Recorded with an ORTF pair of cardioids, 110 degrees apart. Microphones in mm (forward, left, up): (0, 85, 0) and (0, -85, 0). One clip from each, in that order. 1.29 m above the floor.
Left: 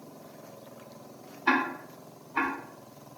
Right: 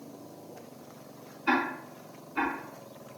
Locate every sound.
1.5 s ticking: 50° left, 1.1 m